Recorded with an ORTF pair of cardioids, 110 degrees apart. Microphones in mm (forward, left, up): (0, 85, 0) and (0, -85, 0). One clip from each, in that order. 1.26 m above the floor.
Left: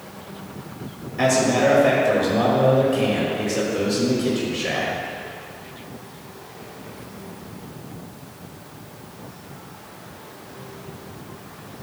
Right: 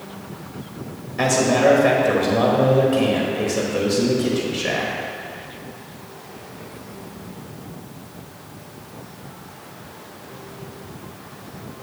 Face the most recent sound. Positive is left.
turn(degrees=-10)